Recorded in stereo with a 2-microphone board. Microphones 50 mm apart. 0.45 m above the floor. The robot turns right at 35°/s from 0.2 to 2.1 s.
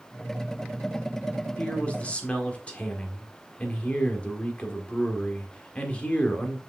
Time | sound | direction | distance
1.6 | a man speaking | 25° left (ahead or behind) | 1.4 m